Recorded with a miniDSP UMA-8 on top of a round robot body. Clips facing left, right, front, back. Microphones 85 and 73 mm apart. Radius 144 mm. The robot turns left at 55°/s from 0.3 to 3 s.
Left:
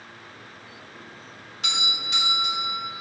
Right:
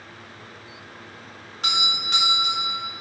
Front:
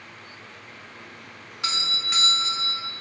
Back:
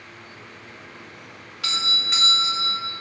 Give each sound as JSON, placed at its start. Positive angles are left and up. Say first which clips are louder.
{"t": 1.6, "sound": "a doorbell", "louder": "right 4 dB, back 2 dB", "azimuth_deg": -60, "distance_m": 2.5}